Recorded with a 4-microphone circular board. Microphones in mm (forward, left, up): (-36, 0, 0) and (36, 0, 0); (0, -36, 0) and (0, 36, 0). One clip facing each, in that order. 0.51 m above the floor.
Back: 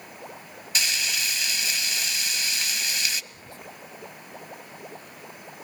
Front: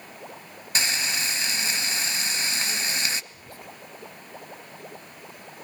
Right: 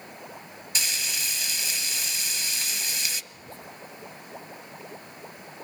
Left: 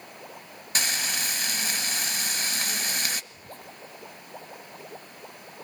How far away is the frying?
About 0.6 m.